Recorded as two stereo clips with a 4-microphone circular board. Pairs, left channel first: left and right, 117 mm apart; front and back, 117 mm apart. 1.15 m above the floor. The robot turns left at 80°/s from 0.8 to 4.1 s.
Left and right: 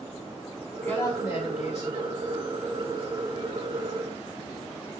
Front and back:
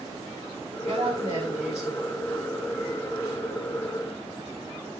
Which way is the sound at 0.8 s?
165° left.